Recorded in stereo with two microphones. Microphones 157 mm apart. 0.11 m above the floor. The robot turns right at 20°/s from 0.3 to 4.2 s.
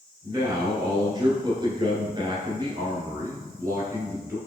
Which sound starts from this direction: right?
A man speaking, at 0.2 s.